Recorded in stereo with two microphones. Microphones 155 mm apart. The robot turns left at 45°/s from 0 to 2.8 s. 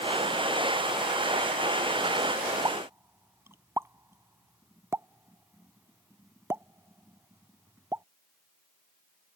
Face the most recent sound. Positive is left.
turn(degrees=-15)  # may be behind; listen again after turning